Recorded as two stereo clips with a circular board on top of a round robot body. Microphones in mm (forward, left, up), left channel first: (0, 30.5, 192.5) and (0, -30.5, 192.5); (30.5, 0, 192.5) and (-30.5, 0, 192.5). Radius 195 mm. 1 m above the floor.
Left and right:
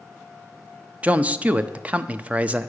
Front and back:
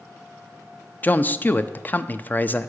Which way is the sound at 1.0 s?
40° right.